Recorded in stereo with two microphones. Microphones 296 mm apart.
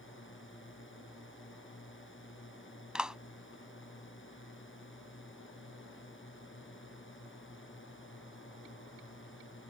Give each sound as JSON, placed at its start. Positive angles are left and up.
{"t": 0.0, "sound": "a drone", "side_deg": 40}
{"t": 3.0, "sound": "a clap", "side_deg": -5}